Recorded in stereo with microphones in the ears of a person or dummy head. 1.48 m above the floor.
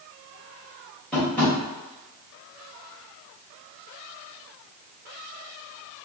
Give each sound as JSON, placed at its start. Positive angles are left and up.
{"t": 1.1, "sound": "tapping", "side_deg": 10, "distance_m": 1.6}